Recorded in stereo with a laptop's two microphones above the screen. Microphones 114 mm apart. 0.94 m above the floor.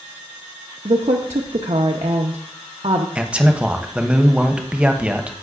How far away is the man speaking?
About 0.6 m.